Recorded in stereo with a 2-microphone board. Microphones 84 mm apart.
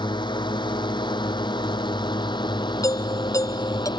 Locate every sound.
0.0 s a drone: 65° left (ahead or behind)
2.8 s a doorbell: 40° left (ahead or behind)